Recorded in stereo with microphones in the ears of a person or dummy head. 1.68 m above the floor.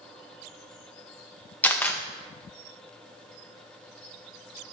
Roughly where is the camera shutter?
Centre.